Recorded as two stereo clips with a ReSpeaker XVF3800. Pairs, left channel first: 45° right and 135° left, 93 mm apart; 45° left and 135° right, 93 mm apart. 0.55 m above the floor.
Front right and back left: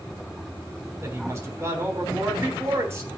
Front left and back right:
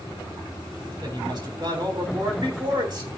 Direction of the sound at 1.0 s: 170° right.